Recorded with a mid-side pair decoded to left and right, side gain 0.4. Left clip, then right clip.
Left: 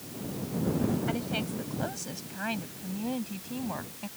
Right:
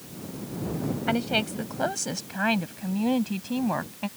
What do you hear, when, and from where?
1.1 s a woman speaking: 65° right